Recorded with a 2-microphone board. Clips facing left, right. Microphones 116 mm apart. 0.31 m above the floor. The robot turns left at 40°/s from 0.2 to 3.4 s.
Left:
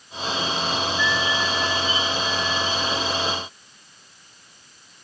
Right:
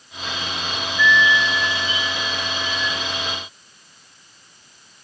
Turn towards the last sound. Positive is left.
turn(degrees=50)